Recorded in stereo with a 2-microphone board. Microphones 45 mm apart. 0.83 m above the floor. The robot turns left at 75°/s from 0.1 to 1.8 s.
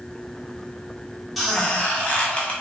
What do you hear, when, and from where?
1.4 s a squeak: straight behind, 0.7 m; by 2.5 s 150° left, 0.7 m